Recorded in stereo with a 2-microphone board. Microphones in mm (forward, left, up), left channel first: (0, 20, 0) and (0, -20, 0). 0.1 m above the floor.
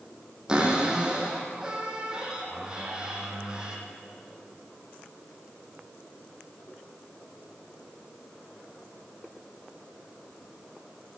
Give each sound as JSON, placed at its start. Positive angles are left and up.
{"t": 0.5, "sound": "a cupboard door", "side_deg": -20, "distance_m": 4.0}